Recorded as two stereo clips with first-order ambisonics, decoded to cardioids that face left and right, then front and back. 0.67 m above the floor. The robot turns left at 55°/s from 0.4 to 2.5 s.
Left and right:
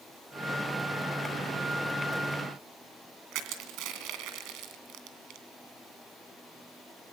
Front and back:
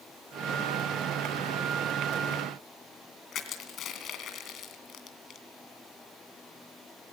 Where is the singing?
I don't hear singing.